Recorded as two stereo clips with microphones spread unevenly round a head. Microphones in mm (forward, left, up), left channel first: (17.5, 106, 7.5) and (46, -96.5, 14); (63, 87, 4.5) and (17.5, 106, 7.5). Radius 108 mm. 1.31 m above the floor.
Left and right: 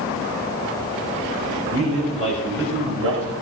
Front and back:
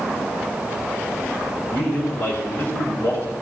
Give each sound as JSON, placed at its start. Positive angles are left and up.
{"t": 1.7, "sound": "a man speaking", "azimuth_deg": -55, "distance_m": 4.5}